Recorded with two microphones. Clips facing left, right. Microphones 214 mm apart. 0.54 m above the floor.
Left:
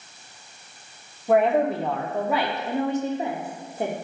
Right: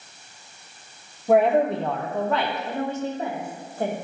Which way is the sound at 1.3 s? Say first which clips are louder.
Right 1 dB; centre (ahead or behind).